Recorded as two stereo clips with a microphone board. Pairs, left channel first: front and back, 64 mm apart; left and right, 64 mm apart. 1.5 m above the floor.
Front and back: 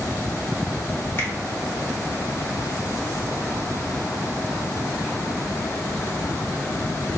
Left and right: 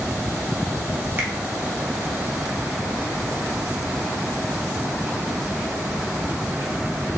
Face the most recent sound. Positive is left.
turn(degrees=-35)